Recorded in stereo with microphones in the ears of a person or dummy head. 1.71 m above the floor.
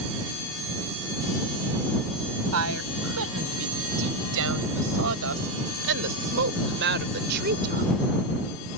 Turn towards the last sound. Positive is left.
turn(degrees=-50)  # may be behind; listen again after turning